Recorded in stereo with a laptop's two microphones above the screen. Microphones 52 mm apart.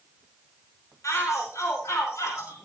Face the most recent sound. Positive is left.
turn(degrees=85)